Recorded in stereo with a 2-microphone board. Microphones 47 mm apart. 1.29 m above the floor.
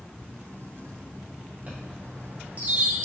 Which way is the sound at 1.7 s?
35° right (ahead or behind).